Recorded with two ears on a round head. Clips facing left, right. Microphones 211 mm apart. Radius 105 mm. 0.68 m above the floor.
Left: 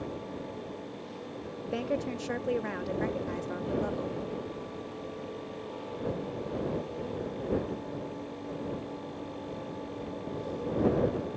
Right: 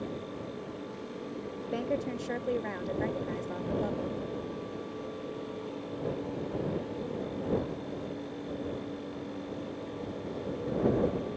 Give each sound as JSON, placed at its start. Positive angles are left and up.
{"t": 1.6, "sound": "a woman speaking", "side_deg": 5}